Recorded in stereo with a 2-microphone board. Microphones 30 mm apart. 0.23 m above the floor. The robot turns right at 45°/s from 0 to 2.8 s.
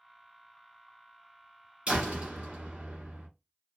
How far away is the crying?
I don't hear crying.